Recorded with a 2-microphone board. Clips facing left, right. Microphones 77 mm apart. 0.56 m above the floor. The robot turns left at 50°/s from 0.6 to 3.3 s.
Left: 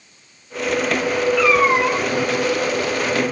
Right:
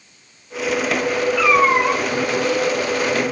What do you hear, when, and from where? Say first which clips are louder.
1.4 s a cat meowing: right 1 dB; 5° right, 1.6 m; by 2.0 s 40° right, 1.6 m